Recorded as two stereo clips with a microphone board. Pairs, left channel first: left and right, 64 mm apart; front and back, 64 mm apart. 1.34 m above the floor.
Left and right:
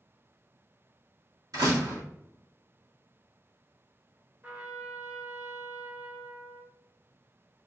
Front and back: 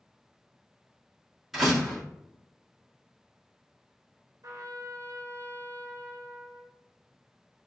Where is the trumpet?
155° right, 0.8 m.